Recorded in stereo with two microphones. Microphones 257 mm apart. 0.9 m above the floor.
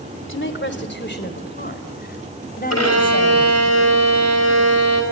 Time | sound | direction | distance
0.3 | a woman speaking | 50° left (ahead or behind) | 2.5 m
2.7 | a violin | 70° left (ahead or behind) | 5.5 m